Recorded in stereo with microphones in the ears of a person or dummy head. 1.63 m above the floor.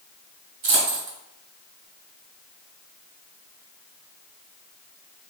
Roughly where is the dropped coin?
Right.